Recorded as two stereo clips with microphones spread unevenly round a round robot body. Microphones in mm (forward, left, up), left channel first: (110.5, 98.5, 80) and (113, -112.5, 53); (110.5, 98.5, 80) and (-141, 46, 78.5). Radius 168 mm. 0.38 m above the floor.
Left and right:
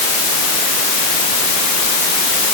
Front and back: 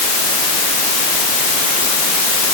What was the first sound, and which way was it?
Only background noise.